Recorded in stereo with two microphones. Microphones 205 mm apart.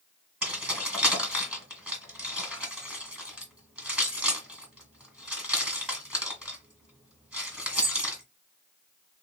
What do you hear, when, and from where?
0.4 s keys jangling: 5° right (ahead or behind), 1.8 m